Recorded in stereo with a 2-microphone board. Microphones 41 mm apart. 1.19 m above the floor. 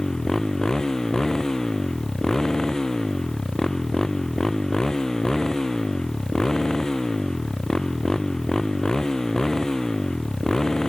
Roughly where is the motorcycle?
Centre.